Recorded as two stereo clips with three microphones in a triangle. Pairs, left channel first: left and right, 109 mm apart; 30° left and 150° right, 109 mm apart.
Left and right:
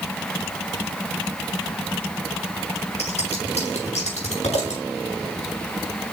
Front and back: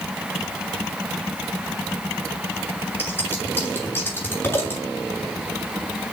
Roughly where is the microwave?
I don't hear a microwave.